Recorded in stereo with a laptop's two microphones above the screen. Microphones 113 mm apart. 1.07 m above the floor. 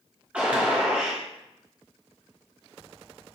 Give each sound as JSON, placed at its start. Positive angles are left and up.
{"t": 0.3, "sound": "a gunshot", "side_deg": -10, "distance_m": 1.5}